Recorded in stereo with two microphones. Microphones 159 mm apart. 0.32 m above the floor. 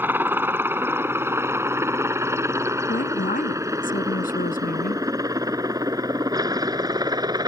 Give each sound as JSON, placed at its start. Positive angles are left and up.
{"t": 0.0, "sound": "a helicopter", "side_deg": -10}
{"t": 2.9, "sound": "a woman speaking", "side_deg": 65}